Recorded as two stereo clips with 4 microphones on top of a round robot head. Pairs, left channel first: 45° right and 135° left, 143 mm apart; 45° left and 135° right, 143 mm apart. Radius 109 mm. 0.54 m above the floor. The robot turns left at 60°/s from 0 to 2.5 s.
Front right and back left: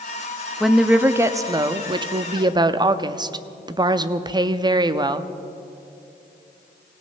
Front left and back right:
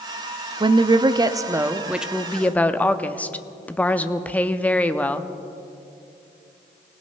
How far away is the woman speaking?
About 0.7 m.